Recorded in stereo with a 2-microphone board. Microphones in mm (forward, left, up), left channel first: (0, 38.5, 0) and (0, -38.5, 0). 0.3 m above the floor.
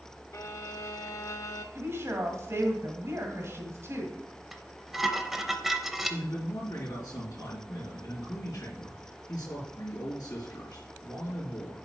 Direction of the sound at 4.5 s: 5° right (ahead or behind).